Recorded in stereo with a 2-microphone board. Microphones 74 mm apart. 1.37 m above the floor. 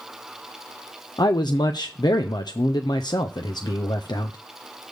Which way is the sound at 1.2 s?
70° left (ahead or behind).